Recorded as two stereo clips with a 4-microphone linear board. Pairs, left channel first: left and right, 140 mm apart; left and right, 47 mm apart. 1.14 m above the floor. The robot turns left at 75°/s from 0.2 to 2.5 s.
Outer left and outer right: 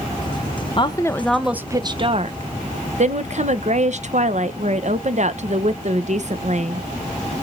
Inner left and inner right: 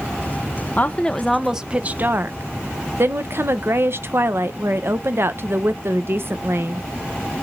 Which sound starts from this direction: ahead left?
A woman speaking, at 0.8 s.